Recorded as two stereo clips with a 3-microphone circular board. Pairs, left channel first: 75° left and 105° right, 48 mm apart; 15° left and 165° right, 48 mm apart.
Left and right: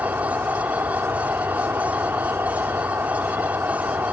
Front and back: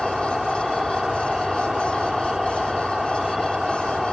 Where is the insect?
85° right.